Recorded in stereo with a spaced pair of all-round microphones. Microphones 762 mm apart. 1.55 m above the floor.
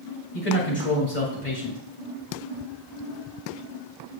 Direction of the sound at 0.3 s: 65° left (ahead or behind).